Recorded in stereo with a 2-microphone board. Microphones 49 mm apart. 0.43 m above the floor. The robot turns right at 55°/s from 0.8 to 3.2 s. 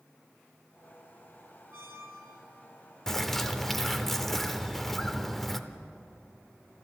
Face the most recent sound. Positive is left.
turn(degrees=5)  # may be behind; listen again after turning